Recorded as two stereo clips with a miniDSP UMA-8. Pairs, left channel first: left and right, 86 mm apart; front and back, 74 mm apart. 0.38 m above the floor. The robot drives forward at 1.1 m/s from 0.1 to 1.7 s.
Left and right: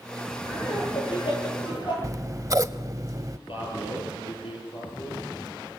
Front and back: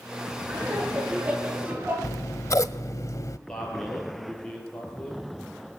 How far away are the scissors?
About 0.7 m.